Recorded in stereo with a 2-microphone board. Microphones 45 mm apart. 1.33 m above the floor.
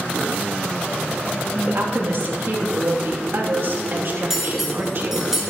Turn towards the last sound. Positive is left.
turn(degrees=-10)  # may be behind; listen again after turning